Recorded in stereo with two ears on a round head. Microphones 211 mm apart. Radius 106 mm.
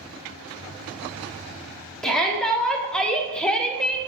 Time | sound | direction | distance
2.0 | a shout | 5° left (ahead or behind) | 1.8 m